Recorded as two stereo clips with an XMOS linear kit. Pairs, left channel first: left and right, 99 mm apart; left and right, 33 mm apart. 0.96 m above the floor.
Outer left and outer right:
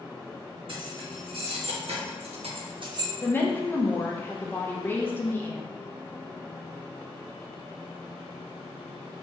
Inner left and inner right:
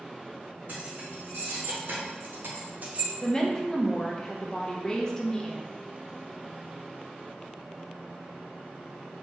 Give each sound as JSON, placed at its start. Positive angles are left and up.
{"t": 0.7, "sound": "keys jangling", "side_deg": -55, "distance_m": 1.4}
{"t": 3.2, "sound": "a woman speaking", "side_deg": 20, "distance_m": 0.6}